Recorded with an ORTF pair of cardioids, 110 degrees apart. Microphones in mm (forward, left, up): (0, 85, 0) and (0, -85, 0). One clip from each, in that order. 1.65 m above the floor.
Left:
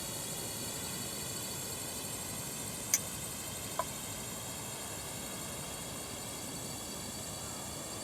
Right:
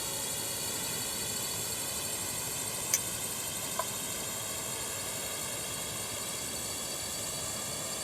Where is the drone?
35° right; by 8.1 s 40° right.